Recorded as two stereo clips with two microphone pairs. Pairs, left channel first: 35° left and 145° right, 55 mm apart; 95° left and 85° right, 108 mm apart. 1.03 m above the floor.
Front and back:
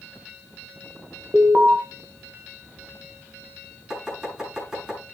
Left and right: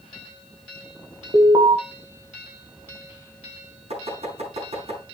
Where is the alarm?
105° right, 1.5 m.